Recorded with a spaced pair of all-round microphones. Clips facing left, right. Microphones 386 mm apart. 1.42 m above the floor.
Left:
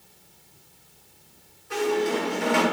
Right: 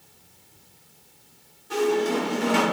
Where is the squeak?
50° right (ahead or behind), 1.0 m.